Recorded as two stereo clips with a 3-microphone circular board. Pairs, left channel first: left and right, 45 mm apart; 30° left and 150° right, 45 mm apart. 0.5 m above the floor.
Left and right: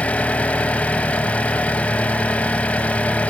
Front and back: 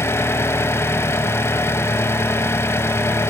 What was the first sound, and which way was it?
An engine running, 30° left.